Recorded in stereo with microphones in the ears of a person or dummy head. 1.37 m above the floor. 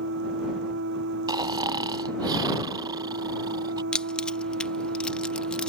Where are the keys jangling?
10° left (ahead or behind).